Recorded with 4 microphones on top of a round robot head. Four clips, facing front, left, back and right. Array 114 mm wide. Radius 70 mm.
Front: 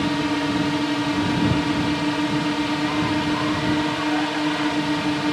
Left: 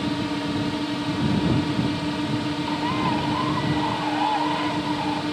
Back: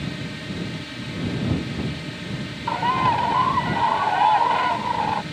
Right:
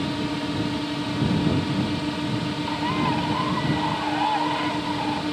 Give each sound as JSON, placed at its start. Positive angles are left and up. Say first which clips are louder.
{"t": 0.0, "sound": "a drone", "louder": "left 1 dB, front 11 dB", "azimuth_deg": 0}
{"t": 2.7, "sound": "a bird", "louder": "even, back 2 dB", "azimuth_deg": 175}